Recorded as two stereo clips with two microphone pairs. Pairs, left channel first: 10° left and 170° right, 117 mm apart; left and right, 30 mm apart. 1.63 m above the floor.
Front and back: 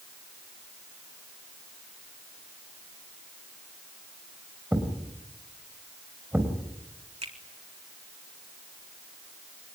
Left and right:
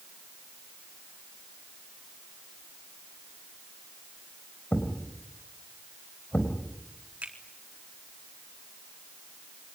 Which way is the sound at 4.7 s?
115° left.